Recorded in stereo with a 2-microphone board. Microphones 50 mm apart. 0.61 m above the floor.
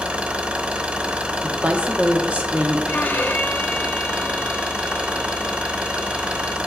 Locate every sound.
0.0 s an engine running: 30° right (ahead or behind), 0.7 m
1.4 s a woman speaking: 25° right (ahead or behind), 0.8 m
2.9 s a violin: 40° left (ahead or behind), 0.5 m